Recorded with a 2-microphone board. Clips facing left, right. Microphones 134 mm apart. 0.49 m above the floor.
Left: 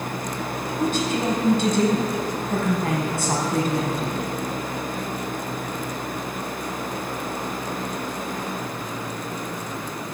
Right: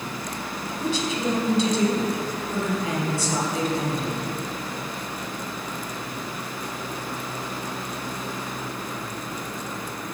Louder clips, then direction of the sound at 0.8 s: Left 3 dB; 55° left (ahead or behind).